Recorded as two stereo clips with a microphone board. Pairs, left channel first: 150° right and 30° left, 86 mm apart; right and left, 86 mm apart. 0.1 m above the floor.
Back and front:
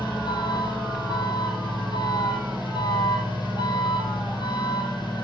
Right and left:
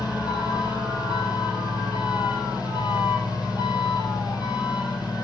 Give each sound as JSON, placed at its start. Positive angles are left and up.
{"t": 0.0, "sound": "an engine running", "azimuth_deg": -120, "distance_m": 3.0}